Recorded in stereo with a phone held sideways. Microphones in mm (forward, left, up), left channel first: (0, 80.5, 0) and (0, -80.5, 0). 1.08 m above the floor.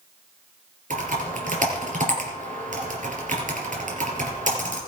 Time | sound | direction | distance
0.9 | typing on a keyboard | 50° right (ahead or behind) | 3.5 m